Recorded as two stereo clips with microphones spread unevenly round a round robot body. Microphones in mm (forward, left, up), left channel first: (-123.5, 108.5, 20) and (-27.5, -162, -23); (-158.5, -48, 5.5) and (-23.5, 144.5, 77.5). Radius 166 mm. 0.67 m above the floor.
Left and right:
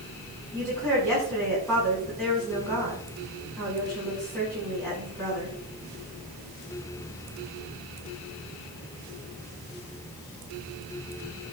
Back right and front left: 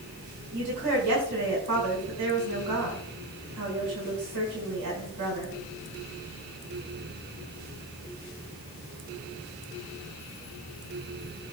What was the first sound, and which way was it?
A woman speaking, 20° left.